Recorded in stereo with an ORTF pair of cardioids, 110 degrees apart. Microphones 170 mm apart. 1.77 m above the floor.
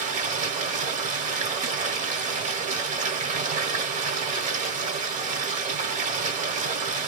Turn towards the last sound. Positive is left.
turn(degrees=-50)